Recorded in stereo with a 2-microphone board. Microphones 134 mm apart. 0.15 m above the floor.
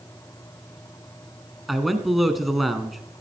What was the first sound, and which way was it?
A man speaking, centre (ahead or behind).